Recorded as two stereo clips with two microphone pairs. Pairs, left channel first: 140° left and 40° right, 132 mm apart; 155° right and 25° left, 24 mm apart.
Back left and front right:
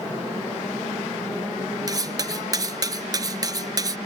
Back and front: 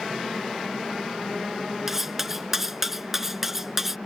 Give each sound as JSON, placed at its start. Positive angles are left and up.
{"t": 1.9, "sound": "cutlery clinking", "azimuth_deg": -40}